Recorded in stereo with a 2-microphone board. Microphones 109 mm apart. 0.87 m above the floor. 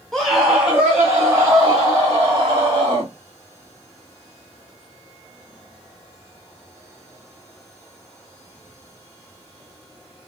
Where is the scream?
5° left (ahead or behind), 0.9 m; by 3.1 s 40° right (ahead or behind), 2 m.